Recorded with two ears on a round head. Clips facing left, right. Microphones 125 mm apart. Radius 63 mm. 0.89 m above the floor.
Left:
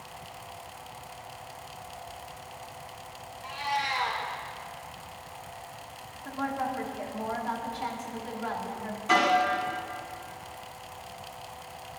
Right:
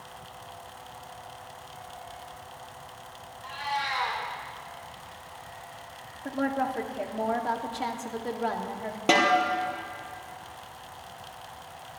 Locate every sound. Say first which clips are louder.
3.4 s a cat meowing: left 1 dB; 15° left (ahead or behind), 4.5 m
6.2 s a woman speaking: right 3 dB; 50° right (ahead or behind), 1.5 m
9.1 s a snare drum: right 2 dB; 80° right, 3.5 m